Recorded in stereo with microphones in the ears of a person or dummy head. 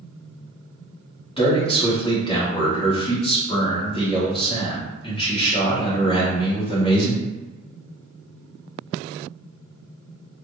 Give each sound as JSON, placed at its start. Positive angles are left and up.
{"t": 1.4, "sound": "a man speaking", "side_deg": 20, "distance_m": 1.4}